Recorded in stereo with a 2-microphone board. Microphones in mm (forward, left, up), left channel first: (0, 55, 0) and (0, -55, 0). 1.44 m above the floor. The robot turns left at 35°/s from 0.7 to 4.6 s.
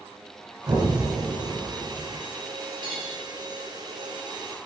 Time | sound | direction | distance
0.7 | an explosion | 30° right | 1.9 m
2.8 | cutlery clinking | 55° left (ahead or behind) | 3.5 m